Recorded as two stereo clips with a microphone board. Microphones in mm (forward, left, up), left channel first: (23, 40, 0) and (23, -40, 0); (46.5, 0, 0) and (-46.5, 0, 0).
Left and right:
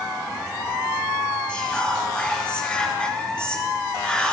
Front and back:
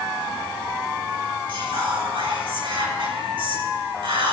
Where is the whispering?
165° left, 4 m.